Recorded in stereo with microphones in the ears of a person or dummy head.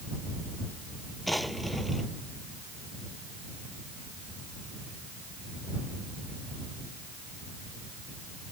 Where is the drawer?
5° left (ahead or behind).